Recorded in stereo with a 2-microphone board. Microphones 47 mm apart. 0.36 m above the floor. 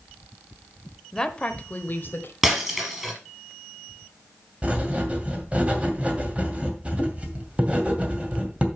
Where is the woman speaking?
10° left (ahead or behind), 1.1 m; by 2.3 s 55° left (ahead or behind), 1.3 m.